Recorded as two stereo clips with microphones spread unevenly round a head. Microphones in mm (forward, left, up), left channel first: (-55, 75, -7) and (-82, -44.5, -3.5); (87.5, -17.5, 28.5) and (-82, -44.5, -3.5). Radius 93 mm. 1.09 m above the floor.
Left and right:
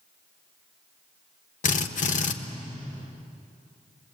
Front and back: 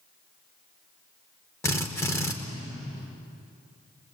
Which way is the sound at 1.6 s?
80° left.